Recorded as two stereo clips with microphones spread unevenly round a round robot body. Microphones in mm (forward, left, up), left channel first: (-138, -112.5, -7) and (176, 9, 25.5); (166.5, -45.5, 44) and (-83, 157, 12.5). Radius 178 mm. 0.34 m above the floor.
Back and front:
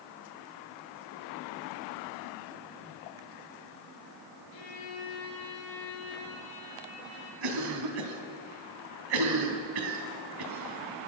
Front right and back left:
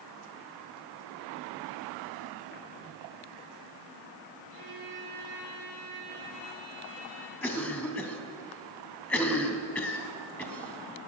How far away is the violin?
About 7 m.